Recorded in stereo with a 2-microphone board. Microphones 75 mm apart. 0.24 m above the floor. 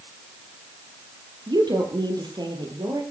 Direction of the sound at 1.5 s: 75° right (ahead or behind).